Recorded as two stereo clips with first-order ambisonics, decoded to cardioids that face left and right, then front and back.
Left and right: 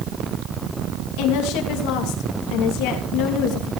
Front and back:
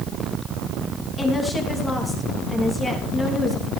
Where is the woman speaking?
80° left, 3 m.